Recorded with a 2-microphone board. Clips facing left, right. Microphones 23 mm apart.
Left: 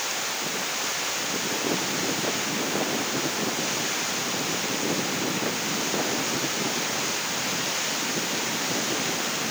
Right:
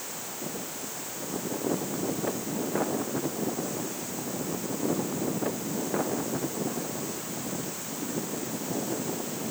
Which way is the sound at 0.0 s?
60° left (ahead or behind).